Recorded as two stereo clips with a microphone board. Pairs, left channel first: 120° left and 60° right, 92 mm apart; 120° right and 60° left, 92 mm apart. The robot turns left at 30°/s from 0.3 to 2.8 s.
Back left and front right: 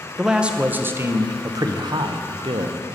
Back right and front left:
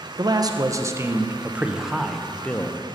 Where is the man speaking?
20° left, 0.8 m; by 2.8 s 55° right, 0.8 m.